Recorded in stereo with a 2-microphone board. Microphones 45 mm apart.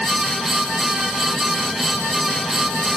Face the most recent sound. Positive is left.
No sound to turn to.